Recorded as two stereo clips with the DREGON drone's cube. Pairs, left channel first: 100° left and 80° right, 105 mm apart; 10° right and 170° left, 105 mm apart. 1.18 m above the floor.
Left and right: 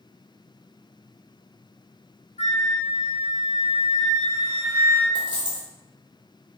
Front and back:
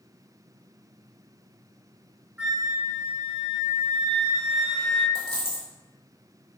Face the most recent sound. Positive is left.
turn(degrees=-155)